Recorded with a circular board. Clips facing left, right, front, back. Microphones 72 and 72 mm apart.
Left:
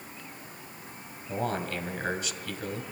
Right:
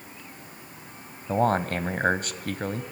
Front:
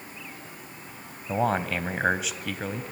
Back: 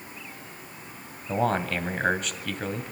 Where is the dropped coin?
No dropped coin in this recording.